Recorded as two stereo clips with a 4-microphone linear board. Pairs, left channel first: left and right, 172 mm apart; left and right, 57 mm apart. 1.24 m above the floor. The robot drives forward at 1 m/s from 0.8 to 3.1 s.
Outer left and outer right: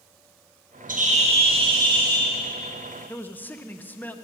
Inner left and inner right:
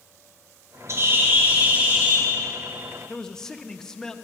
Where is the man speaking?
10° left (ahead or behind), 0.6 m.